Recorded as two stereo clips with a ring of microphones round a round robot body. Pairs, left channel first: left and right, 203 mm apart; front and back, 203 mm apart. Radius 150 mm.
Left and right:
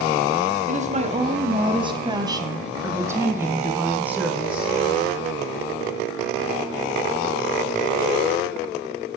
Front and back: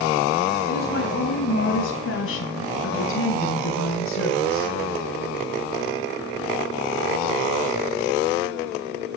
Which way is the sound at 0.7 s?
45° right.